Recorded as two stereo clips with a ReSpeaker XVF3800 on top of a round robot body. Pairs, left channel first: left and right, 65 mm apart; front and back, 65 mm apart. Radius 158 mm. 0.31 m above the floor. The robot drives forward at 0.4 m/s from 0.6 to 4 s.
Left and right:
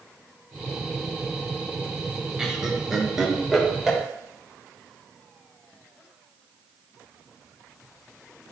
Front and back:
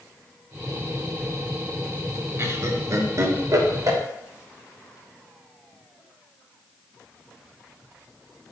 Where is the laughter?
165° right, 1.3 m; by 4.0 s 170° right, 1.8 m.